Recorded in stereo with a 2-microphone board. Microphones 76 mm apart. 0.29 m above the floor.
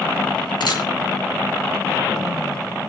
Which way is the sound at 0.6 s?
75° left (ahead or behind).